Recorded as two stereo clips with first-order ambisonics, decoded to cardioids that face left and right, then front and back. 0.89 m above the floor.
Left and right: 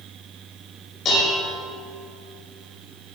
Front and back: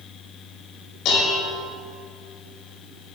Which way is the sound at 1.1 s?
35° left.